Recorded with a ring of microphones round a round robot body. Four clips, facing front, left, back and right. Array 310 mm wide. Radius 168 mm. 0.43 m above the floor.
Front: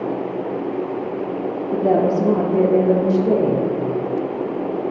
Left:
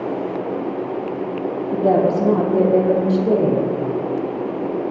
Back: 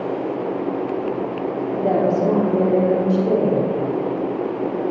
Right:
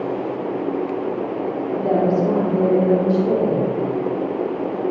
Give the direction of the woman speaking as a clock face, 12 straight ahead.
10 o'clock.